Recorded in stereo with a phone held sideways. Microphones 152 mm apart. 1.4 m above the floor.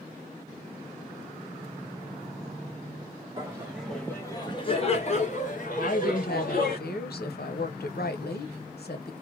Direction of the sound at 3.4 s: 25° right (ahead or behind).